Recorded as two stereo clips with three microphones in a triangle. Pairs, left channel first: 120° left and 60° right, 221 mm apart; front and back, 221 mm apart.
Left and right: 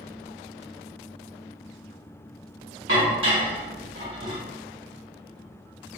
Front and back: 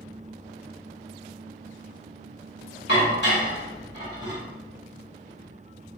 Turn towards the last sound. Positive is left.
turn(degrees=-35)